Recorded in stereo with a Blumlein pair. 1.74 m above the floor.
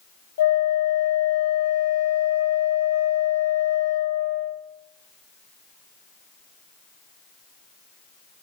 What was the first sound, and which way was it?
A flute, 60° left.